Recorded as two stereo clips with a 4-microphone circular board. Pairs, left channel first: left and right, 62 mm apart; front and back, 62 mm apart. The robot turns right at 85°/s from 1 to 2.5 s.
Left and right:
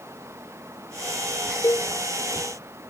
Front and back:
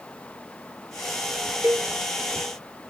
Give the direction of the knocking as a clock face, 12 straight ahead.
I don't hear knocking.